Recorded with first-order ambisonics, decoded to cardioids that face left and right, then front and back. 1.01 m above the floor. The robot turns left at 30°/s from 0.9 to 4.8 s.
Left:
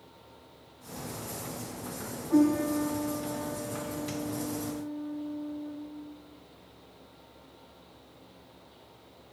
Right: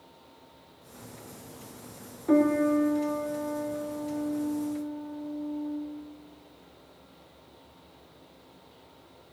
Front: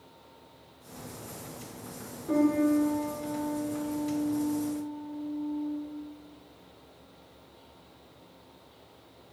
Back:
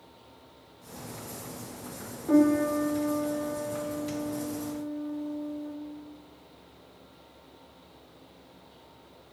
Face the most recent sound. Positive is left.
turn(degrees=175)